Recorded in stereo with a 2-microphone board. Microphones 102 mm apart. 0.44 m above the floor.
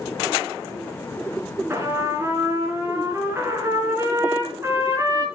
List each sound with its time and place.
1.7 s a trumpet: 25° right (ahead or behind), 3.5 m